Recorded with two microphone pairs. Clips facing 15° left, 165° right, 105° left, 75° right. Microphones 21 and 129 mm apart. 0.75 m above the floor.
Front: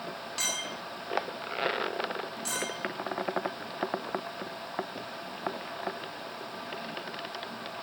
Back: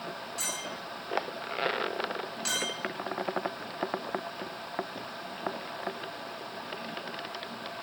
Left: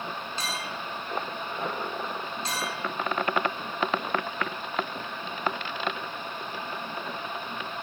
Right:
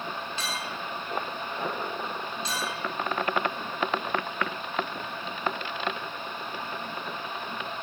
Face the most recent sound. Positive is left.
turn(degrees=145)